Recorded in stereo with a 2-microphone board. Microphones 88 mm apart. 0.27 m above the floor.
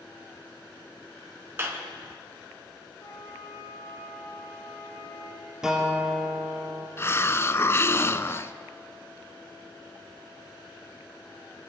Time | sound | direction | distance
1.6 | a clap | 30° right (ahead or behind) | 2.5 m
3.0 | a flute | 35° left (ahead or behind) | 5.5 m
5.6 | a guitar | 5° right (ahead or behind) | 3.5 m
7.0 | a hiss | 30° left (ahead or behind) | 0.6 m